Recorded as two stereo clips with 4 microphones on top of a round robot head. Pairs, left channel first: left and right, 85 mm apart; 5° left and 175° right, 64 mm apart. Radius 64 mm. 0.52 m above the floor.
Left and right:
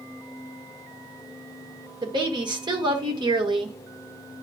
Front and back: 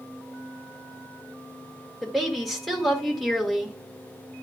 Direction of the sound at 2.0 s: 80° right.